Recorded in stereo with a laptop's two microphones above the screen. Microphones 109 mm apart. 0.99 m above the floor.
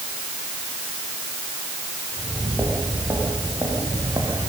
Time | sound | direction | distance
2.1 | footsteps | 20° right (ahead or behind) | 9.5 m